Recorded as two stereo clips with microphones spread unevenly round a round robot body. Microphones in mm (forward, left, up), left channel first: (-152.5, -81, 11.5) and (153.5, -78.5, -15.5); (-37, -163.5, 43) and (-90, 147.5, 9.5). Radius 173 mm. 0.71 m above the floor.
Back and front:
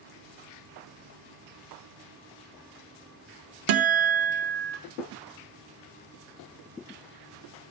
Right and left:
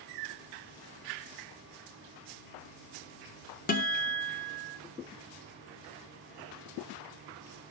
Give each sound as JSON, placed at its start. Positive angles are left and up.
{"t": 3.7, "sound": "a guitar", "azimuth_deg": -10, "distance_m": 0.7}